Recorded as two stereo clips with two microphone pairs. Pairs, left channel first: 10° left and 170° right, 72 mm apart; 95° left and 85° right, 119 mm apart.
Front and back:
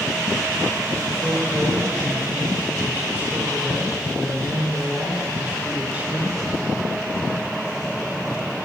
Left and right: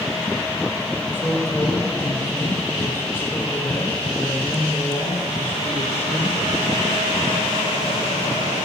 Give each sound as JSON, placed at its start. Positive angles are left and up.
{"t": 1.1, "sound": "a man speaking", "azimuth_deg": 150, "distance_m": 1.6}